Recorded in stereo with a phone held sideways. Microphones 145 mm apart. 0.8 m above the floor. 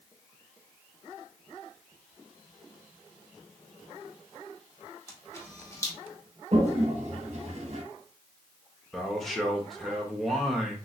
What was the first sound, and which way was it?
A camera shutter, 20° left (ahead or behind).